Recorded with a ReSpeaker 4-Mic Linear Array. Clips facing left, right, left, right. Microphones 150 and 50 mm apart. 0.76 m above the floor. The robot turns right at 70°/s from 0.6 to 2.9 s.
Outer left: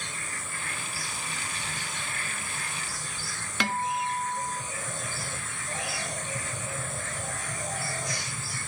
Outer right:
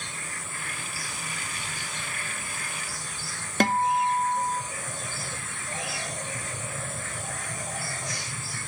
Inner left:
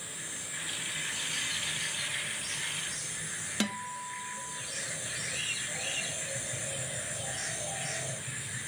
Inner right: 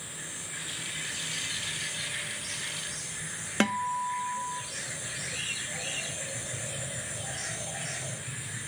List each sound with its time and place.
3.6 s a guitar: 45° right (ahead or behind), 1.1 m